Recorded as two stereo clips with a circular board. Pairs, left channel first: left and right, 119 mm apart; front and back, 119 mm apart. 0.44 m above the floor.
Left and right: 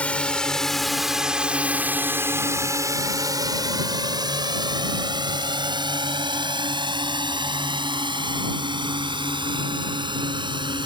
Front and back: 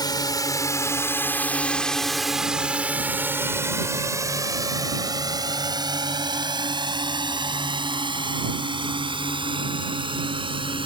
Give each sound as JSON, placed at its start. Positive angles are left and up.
{"t": 0.0, "sound": "a drone", "azimuth_deg": 20}